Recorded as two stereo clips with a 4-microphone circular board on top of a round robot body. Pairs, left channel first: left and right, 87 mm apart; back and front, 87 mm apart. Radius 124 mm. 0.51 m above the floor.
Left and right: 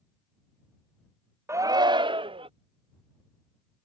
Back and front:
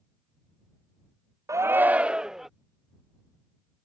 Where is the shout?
40° right; by 2.5 s 85° right.